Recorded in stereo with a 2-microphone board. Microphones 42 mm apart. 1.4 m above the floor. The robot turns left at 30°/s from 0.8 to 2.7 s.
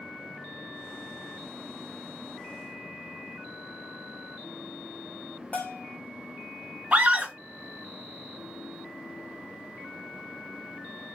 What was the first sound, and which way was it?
A bell, 40° left (ahead or behind).